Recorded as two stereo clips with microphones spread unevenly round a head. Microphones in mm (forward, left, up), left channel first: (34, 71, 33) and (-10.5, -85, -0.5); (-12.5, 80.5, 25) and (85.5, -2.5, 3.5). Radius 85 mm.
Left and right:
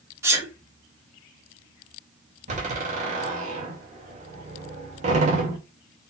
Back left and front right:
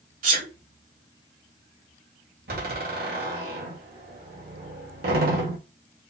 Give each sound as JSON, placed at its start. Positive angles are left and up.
{"t": 0.2, "sound": "a sneeze", "azimuth_deg": -30, "distance_m": 2.5}
{"t": 2.5, "sound": "a door slam", "azimuth_deg": -60, "distance_m": 2.0}